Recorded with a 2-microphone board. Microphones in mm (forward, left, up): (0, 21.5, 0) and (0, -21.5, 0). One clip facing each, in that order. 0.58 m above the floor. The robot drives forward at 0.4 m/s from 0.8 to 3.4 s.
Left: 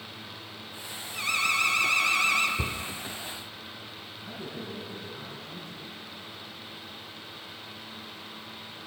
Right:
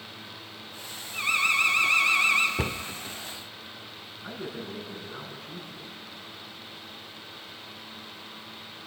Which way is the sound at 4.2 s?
60° right (ahead or behind).